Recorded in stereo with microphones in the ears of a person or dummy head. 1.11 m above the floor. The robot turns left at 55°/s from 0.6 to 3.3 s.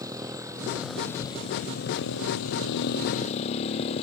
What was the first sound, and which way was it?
A motorcycle, 20° right (ahead or behind).